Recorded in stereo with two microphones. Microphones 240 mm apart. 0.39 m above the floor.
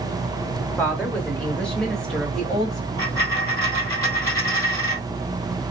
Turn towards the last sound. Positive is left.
turn(degrees=15)  # may be behind; listen again after turning